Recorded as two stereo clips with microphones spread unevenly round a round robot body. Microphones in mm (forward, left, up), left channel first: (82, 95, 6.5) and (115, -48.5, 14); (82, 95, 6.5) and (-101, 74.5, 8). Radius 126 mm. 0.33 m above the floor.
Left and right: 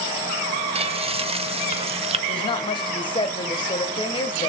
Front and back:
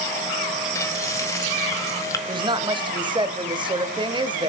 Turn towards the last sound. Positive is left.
turn(degrees=135)